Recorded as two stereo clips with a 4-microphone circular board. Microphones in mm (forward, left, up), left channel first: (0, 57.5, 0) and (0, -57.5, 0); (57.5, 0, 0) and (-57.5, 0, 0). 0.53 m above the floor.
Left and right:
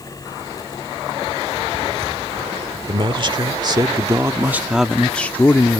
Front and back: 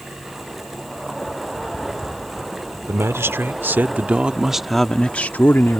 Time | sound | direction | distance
2.9 | a man speaking | 120° right | ?